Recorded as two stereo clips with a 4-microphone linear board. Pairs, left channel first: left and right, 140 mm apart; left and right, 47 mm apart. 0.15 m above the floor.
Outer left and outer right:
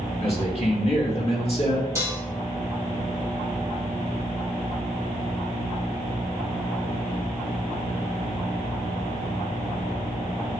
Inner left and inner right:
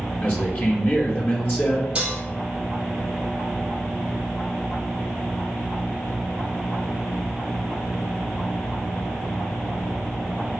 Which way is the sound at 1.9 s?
20° right (ahead or behind).